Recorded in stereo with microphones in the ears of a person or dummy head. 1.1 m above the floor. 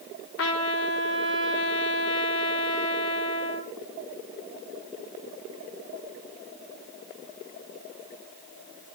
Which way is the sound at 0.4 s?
70° left (ahead or behind).